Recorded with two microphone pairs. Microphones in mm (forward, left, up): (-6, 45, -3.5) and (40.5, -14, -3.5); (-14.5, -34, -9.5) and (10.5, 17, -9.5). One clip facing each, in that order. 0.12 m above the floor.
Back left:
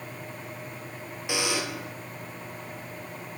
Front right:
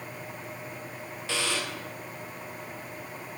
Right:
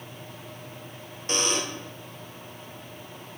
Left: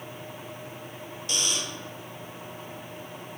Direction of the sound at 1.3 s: 160° right.